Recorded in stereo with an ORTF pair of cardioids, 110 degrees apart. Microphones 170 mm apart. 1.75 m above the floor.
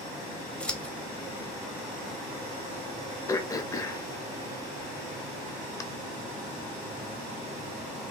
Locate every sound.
0.6 s scissors: 5° left, 0.7 m
3.3 s throat clearing: 20° left, 0.5 m